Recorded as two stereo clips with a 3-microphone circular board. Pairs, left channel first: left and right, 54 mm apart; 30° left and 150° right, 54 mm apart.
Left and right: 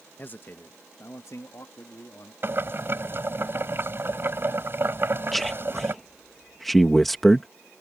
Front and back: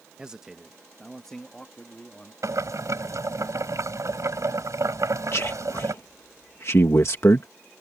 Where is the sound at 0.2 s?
140° left; by 2.3 s 95° left.